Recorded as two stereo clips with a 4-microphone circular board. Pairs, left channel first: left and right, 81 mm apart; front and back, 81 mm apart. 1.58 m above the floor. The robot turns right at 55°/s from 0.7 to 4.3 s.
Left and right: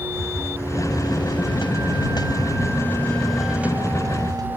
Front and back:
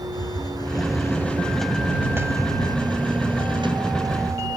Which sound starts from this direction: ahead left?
A hiss, at 0.1 s.